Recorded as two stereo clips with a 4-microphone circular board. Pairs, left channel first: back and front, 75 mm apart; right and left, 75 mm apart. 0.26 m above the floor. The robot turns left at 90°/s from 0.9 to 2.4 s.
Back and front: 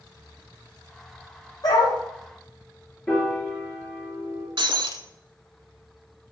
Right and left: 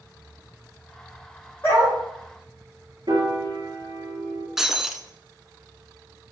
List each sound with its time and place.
1.6 s a dog barking: 155° right, 4 m; by 2.0 s 175° left, 4 m
3.1 s a piano: 105° left, 3.5 m
4.6 s breaking glass: 5° left, 0.7 m